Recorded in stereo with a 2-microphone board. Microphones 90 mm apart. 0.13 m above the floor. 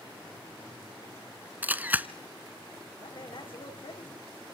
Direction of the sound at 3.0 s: 65° left (ahead or behind).